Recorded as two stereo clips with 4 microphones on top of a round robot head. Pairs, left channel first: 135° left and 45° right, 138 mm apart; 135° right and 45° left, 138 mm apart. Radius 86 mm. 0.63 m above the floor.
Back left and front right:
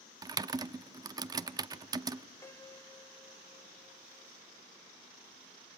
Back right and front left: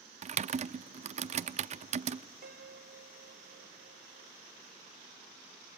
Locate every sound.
0.2 s typing on a keyboard: 15° left, 0.6 m
2.4 s a piano: 65° left, 0.9 m